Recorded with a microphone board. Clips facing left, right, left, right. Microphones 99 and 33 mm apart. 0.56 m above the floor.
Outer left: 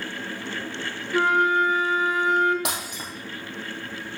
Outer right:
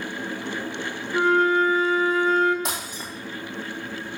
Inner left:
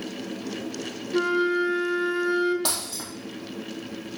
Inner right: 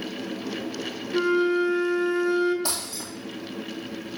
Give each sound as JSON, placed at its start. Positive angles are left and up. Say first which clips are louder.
{"t": 1.1, "sound": "a flute", "louder": "outer right 1 dB, inner right 1 dB", "side_deg": 20, "distance_m": 1.2}
{"t": 2.6, "sound": "breaking glass", "louder": "even, inner left 1 dB", "side_deg": 75, "distance_m": 3.5}